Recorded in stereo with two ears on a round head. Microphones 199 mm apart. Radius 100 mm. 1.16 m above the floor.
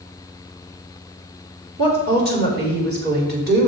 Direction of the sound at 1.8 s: 50° right (ahead or behind).